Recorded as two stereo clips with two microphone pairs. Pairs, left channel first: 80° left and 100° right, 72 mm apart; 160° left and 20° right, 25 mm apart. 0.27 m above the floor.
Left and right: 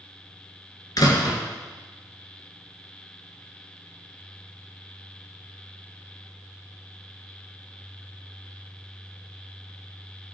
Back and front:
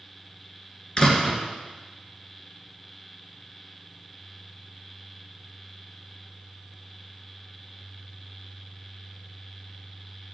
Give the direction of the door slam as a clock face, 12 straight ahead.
8 o'clock.